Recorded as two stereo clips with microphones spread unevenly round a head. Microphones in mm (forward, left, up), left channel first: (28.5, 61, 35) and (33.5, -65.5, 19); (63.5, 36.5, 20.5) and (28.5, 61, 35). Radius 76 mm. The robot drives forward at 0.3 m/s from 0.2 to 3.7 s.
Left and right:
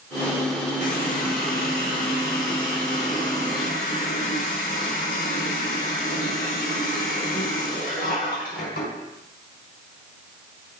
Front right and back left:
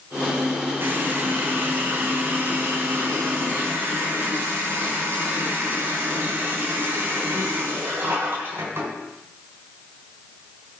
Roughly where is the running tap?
Behind left.